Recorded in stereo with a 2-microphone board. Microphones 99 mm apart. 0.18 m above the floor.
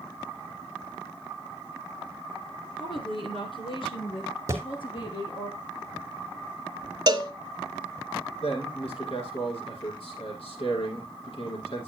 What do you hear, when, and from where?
2.8 s a woman speaking: 60° left (ahead or behind), 2.5 m; by 5.5 s 55° left (ahead or behind), 5 m
4.5 s a thud: 30° right (ahead or behind), 1.9 m
7.1 s a cowbell: 45° right (ahead or behind), 0.7 m
8.4 s a man speaking: 70° left (ahead or behind), 6.5 m